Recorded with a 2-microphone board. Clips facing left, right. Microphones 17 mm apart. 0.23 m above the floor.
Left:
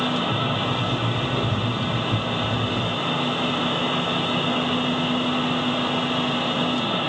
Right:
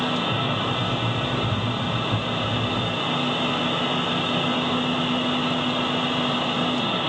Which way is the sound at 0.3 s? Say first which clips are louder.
Left 1 dB; 40° left (ahead or behind).